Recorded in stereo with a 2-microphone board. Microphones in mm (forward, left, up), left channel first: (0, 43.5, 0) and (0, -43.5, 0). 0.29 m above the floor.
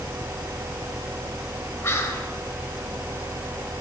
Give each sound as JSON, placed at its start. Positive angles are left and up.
{"t": 1.8, "sound": "whispering", "side_deg": 30, "distance_m": 1.0}